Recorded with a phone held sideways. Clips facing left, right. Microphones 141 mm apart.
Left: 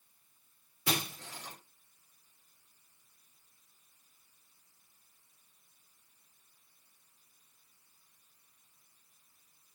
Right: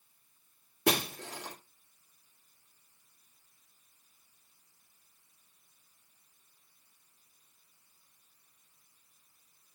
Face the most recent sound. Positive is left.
turn(degrees=-65)  # may be behind; listen again after turning